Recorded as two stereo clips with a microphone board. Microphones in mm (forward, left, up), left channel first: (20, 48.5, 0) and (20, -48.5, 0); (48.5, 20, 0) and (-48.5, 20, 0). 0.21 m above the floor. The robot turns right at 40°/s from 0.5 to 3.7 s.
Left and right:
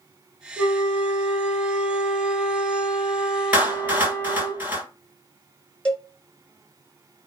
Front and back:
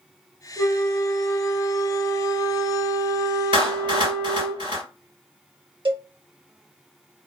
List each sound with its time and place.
0.6 s a flute: 80° right, 0.8 m; by 4.5 s 45° left, 0.8 m
3.5 s a clap: 165° right, 2 m; by 4.8 s 155° right, 2 m
5.8 s a cowbell: 170° left, 1.0 m